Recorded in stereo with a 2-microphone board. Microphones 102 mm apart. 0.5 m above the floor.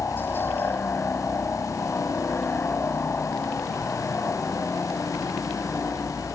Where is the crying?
I don't hear crying.